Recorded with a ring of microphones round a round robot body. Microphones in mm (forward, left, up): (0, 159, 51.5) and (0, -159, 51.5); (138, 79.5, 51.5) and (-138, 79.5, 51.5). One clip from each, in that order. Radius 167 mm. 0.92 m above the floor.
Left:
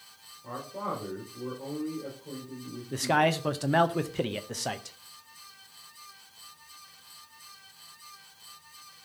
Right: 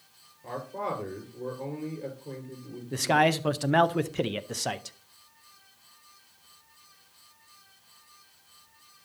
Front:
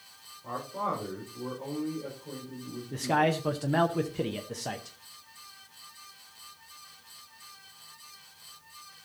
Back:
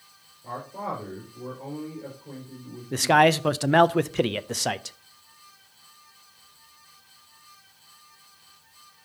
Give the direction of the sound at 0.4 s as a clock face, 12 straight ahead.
3 o'clock.